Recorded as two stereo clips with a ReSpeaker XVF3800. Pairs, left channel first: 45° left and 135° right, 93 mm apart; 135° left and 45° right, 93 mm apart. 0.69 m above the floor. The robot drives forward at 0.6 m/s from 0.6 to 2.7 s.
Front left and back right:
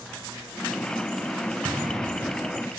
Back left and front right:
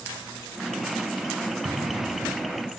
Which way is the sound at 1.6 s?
80° right.